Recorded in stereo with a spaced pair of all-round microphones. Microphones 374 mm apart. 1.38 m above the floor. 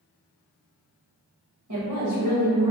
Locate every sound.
1.7 s a woman speaking: 55° right (ahead or behind), 1.3 m; by 2.7 s 75° right (ahead or behind), 0.8 m